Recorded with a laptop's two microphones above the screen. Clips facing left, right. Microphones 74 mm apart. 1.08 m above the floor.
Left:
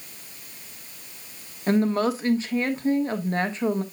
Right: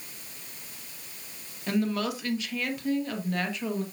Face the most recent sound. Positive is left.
turn(degrees=35)  # may be behind; listen again after turning